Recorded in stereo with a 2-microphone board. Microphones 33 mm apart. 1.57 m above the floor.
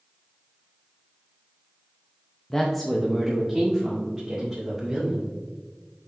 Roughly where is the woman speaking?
Centre.